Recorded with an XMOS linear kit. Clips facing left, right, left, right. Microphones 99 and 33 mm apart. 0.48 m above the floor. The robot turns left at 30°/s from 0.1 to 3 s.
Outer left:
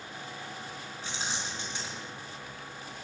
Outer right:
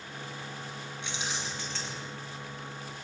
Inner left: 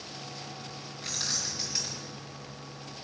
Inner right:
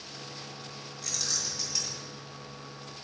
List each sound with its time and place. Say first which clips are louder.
1.0 s keys jangling: even, inner left 1 dB; 40° left, 3.5 m; by 2.0 s 5° left, 3.5 m